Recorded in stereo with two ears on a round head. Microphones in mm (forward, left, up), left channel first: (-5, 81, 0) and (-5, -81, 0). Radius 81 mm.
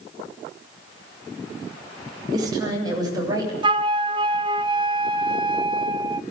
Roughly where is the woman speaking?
Right.